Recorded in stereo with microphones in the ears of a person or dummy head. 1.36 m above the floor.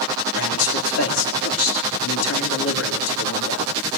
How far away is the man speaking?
About 3.5 m.